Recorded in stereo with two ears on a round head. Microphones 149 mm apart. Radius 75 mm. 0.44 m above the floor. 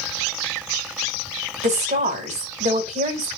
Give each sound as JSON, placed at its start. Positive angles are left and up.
{"t": 1.6, "sound": "a woman speaking", "side_deg": -45, "distance_m": 1.9}